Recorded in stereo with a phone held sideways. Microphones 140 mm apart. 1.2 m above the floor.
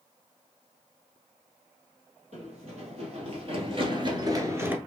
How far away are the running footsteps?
About 2.5 m.